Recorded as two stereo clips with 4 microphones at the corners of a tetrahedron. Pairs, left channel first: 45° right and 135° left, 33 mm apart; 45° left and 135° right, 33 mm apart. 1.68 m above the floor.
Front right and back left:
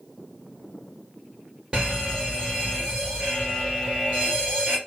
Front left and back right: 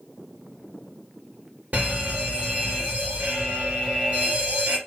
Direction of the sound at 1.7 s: 160° right.